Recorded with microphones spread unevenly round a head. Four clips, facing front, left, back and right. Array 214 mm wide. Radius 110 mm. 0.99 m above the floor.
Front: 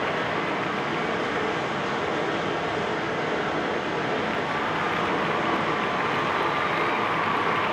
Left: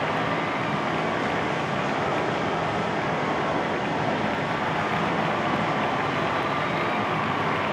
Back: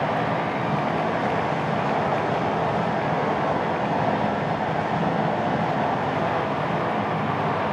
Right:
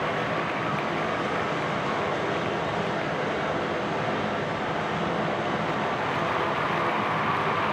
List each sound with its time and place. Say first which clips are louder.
0.0 s running water: left 2 dB, back 3 dB; 175° left, 4.5 m